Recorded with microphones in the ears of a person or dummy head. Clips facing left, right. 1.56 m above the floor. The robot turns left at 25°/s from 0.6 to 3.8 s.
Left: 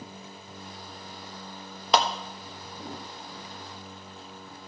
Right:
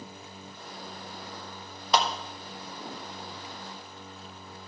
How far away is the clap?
About 1.3 m.